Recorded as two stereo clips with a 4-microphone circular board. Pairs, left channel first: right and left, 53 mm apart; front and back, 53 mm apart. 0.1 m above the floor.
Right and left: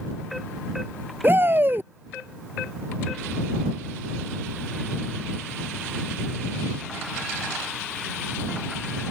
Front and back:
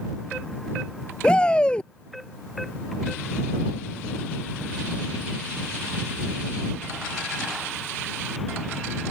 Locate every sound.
1.2 s a shout: 65° left